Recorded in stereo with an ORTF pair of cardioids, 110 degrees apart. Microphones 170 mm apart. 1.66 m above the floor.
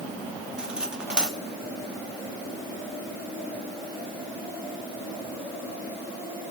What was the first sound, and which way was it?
Cutlery clinking, 5° right.